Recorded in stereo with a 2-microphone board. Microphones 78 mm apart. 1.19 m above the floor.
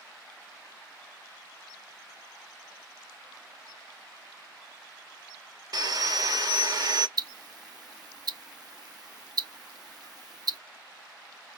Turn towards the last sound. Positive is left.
turn(degrees=-60)  # may be behind; listen again after turning